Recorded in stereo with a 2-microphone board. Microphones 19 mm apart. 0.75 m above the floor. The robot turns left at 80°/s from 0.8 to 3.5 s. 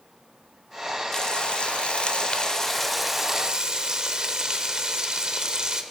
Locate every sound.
1.1 s frying: 145° left, 1.0 m; by 5.8 s 45° right, 1.0 m